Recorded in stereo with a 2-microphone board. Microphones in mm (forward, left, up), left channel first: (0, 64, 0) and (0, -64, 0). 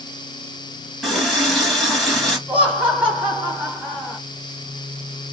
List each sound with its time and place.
1.0 s a running tap: centre (ahead or behind), 3 m
2.5 s laughter: 10° right (ahead or behind), 2 m